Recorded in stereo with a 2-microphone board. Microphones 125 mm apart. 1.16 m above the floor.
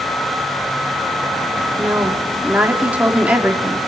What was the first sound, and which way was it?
A woman speaking, 10° right (ahead or behind).